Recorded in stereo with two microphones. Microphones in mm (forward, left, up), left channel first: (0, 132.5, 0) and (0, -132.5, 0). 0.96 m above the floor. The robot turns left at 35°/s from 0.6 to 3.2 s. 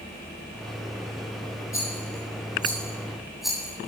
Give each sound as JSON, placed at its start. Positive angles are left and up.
{"t": 1.7, "sound": "a rattle", "side_deg": 50, "distance_m": 8.0}